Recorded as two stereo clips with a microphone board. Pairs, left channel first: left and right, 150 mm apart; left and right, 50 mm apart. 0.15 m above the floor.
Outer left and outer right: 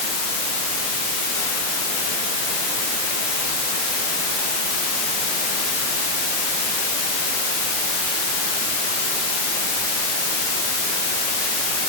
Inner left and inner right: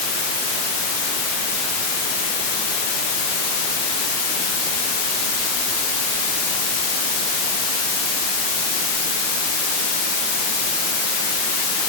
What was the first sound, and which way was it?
Only background noise.